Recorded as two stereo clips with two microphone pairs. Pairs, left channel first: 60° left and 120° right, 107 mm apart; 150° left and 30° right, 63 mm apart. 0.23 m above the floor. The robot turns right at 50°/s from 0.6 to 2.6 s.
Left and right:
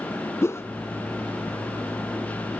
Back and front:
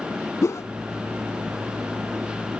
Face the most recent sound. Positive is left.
turn(degrees=-135)